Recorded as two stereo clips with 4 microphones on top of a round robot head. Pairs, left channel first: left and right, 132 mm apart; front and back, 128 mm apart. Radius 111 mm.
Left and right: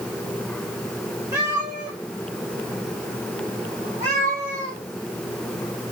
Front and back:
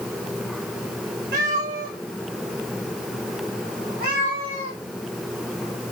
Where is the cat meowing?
165° right, 2 m; by 4.8 s 145° right, 5 m.